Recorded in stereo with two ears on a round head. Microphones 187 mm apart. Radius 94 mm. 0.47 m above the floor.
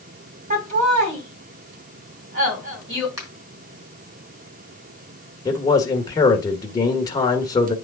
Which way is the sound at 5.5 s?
20° left (ahead or behind).